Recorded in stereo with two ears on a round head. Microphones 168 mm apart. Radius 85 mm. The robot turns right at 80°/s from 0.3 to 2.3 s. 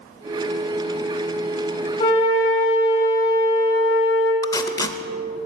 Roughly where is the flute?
Left.